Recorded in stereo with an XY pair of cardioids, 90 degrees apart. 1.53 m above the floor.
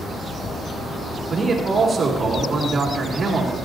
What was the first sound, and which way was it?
A man speaking, 50° right.